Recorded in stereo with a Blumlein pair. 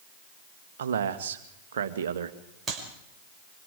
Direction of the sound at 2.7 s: 10° right.